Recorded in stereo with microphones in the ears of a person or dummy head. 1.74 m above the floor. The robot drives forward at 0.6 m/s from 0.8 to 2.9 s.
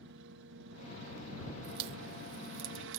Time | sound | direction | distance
0.0 | a helicopter | 60° right (ahead or behind) | ?
1.6 | a crack | 55° right (ahead or behind) | ?